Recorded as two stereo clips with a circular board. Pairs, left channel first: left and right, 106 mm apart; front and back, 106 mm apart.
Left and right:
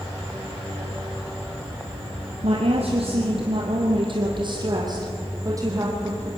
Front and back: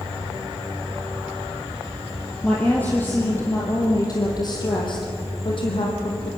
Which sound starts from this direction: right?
A woman speaking, at 2.4 s.